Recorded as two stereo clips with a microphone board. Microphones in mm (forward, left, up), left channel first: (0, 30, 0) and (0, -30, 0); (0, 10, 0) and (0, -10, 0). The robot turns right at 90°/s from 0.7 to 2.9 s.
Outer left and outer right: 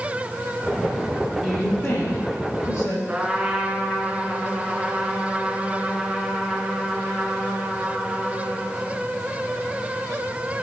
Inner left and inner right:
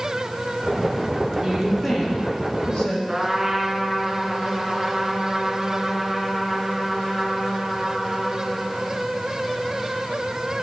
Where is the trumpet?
20° right (ahead or behind), 2.5 m.